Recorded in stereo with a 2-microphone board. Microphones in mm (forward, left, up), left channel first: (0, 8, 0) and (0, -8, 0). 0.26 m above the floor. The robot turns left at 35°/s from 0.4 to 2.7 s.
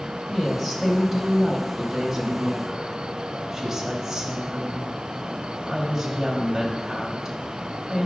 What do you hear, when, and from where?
0.3 s a woman speaking: 15° right (ahead or behind), 1.0 m; by 8.1 s 25° right (ahead or behind), 1.0 m